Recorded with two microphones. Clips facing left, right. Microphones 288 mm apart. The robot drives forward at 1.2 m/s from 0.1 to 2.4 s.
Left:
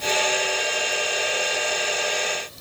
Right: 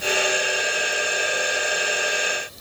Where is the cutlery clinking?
I don't hear cutlery clinking.